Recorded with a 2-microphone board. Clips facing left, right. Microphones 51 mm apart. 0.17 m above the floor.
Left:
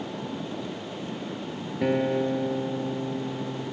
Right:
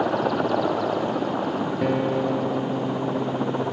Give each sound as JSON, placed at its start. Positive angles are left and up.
{"t": 0.0, "sound": "a helicopter", "side_deg": -70}
{"t": 1.8, "sound": "a guitar", "side_deg": 5}